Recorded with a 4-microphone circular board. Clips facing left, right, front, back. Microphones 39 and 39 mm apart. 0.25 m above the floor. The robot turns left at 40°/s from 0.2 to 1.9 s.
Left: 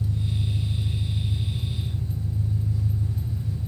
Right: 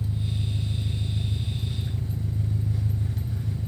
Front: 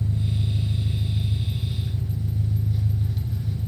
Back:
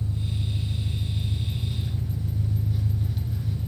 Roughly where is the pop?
No pop in this recording.